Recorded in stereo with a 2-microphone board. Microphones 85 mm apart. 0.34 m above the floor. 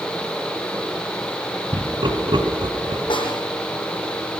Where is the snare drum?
80° left, 8 m.